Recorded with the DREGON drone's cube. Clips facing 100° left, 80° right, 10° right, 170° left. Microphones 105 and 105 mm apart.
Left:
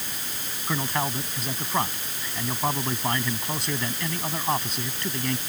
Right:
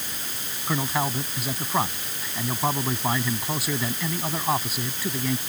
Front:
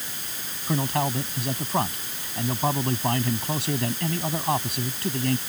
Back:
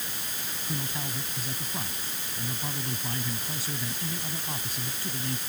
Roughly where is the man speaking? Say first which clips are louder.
Right 2 dB, front 12 dB; ahead.